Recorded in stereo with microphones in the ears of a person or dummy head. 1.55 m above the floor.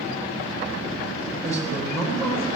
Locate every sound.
1.4 s a man speaking: 15° left (ahead or behind), 5.5 m